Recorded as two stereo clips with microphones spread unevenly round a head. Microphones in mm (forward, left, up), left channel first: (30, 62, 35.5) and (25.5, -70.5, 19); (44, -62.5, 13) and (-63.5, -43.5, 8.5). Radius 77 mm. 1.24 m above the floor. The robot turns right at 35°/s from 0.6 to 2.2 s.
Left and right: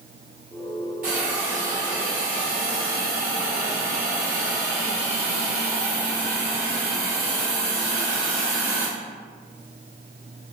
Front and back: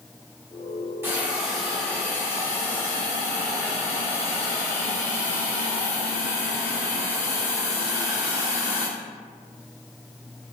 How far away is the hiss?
About 1.5 m.